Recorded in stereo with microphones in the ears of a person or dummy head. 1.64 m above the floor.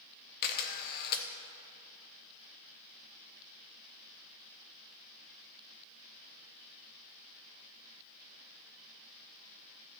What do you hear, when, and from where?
0.4 s a camera shutter: 50° left (ahead or behind), 0.8 m